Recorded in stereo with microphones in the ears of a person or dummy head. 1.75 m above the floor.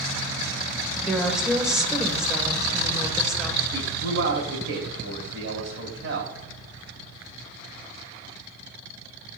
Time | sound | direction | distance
1.0 | a woman speaking | 5° right (ahead or behind) | 1.6 m
3.7 | a man speaking | 85° right | 2.5 m